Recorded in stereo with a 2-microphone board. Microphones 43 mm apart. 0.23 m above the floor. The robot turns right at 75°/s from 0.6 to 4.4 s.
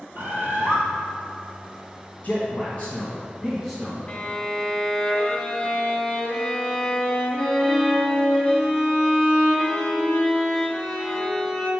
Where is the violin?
30° left (ahead or behind), 1.1 m; by 11.7 s 15° left (ahead or behind), 1.1 m.